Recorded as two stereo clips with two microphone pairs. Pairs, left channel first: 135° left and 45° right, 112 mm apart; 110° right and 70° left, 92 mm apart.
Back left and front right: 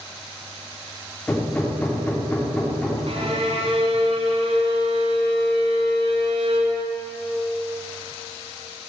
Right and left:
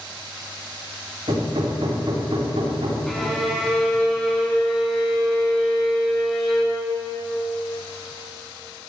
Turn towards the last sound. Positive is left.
turn(degrees=-25)